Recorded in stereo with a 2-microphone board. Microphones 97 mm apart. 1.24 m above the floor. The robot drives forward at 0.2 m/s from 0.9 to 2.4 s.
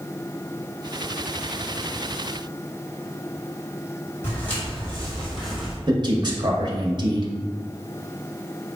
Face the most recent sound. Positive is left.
turn(degrees=-45)  # may be behind; listen again after turning